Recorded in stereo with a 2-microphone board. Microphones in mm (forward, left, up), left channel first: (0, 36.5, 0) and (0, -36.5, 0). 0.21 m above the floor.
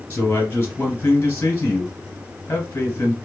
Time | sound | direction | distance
0.1 | a man speaking | 30° left (ahead or behind) | 2.5 m